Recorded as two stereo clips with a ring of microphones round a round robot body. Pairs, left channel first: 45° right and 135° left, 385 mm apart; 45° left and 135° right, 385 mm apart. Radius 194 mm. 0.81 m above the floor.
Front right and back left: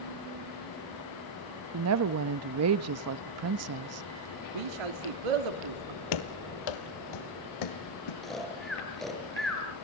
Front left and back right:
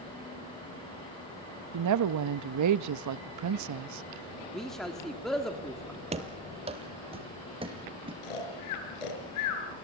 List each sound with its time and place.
1.7 s a woman speaking: 175° right, 0.7 m
4.5 s a man speaking: 135° left, 1.7 m
6.1 s running footsteps: 65° right, 1.5 m; by 8.1 s 60° right, 3.5 m
8.2 s snoring: 45° left, 5 m